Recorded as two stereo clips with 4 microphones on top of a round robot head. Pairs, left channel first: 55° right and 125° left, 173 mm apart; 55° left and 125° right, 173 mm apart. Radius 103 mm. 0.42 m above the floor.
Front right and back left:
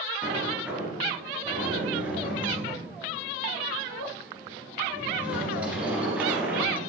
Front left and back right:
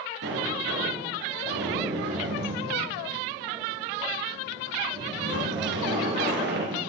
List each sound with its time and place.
0.2 s a sliding door: 150° right, 2.5 m